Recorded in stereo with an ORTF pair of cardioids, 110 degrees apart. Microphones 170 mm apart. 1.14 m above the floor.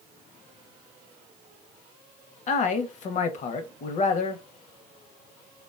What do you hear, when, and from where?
2.5 s a man speaking: 45° left, 0.6 m